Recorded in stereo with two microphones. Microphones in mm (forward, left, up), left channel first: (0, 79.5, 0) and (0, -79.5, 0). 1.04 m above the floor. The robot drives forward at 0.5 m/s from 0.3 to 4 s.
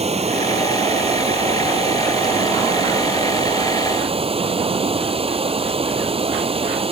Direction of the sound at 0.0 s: 40° right (ahead or behind).